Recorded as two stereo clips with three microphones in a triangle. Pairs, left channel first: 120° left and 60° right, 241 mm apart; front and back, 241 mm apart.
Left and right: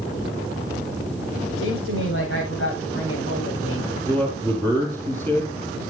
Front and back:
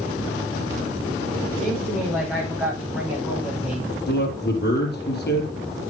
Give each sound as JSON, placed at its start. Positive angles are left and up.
{"t": 1.6, "sound": "a woman speaking", "azimuth_deg": 90, "distance_m": 9.5}
{"t": 4.1, "sound": "a man speaking", "azimuth_deg": 40, "distance_m": 4.0}